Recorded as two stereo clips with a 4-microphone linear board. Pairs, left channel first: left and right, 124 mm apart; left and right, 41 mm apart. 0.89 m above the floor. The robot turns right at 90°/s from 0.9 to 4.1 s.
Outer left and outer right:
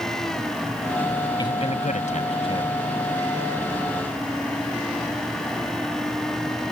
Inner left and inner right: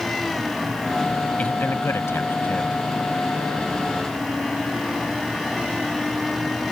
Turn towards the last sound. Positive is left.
turn(degrees=-80)